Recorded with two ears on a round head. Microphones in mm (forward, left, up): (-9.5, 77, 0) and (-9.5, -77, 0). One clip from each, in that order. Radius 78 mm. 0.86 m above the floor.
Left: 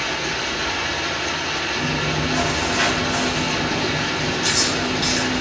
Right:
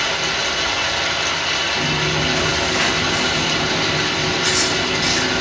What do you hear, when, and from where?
0.0 s running water: 75° right (ahead or behind), 2.5 m
1.8 s chewing: centre (ahead or behind), 3.5 m